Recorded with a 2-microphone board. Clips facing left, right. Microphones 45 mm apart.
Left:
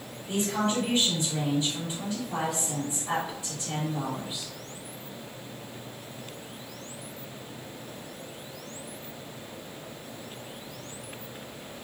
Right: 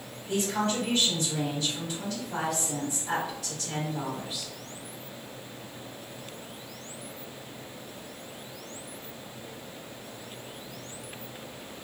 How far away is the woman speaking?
About 1.5 m.